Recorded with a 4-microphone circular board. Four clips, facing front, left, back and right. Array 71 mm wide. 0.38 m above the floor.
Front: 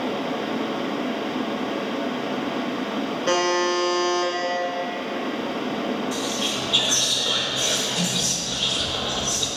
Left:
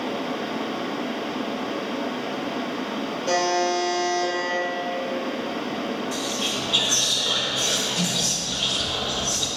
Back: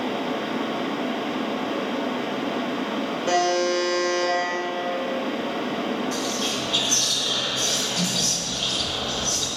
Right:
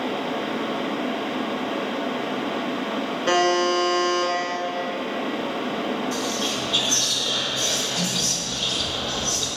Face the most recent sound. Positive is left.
turn(degrees=25)